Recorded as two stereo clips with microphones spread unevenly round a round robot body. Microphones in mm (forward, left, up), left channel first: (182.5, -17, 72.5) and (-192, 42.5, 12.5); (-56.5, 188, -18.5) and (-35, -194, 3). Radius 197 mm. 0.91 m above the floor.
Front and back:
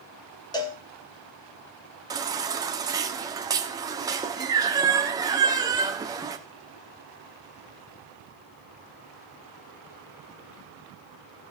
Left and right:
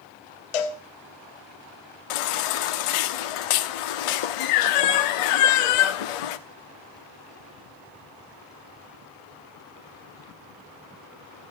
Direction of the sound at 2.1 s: 90° left.